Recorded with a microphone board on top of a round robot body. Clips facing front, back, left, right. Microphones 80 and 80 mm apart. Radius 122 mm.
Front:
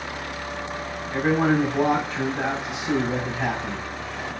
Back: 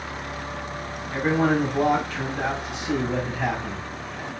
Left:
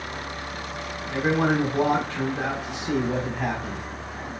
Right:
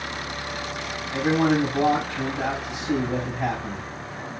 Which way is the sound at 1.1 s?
70° left.